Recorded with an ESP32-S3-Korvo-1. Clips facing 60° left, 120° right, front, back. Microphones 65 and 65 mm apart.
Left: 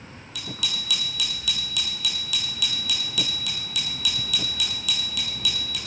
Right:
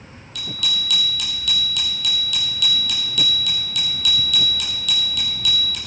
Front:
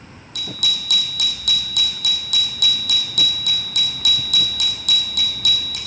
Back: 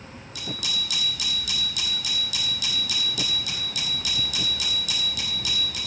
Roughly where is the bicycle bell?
Ahead right.